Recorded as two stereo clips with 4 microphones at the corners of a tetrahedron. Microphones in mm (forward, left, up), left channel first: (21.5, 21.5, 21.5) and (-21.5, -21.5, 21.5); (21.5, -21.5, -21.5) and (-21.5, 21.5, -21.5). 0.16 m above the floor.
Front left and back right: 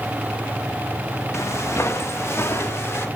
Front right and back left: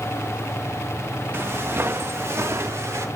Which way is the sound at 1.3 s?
85° left.